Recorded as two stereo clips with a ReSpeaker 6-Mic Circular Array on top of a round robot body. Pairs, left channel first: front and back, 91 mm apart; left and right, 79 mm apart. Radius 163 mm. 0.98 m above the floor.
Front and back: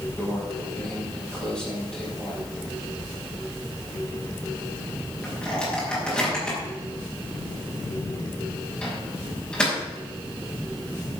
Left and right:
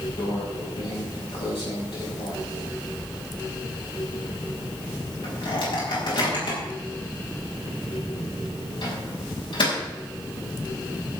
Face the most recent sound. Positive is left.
turn(degrees=80)